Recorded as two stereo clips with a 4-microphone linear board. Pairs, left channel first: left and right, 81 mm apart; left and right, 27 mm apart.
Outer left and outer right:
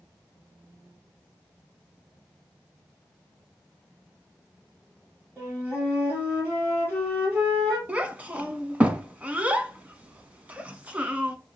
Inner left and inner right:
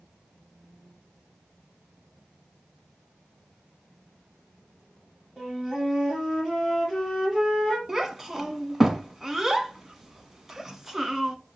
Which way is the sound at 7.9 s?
20° right (ahead or behind).